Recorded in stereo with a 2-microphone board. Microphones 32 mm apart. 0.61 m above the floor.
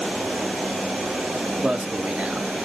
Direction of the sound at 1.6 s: 40° right (ahead or behind).